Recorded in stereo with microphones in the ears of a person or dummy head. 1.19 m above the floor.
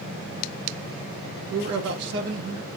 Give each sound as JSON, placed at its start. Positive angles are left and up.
{"t": 1.5, "sound": "a man speaking", "side_deg": -65, "distance_m": 0.7}